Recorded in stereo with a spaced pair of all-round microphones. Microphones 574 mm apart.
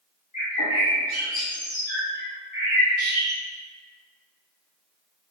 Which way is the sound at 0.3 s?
55° left (ahead or behind).